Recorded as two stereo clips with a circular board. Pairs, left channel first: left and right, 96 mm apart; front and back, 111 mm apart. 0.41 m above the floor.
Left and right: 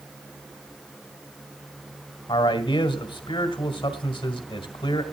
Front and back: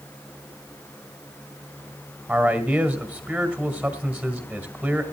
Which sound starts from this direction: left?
A man speaking, at 2.3 s.